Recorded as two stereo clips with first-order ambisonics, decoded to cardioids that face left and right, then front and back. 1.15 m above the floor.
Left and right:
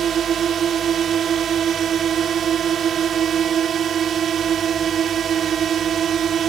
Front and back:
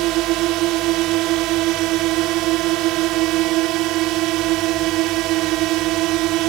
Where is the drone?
150° right.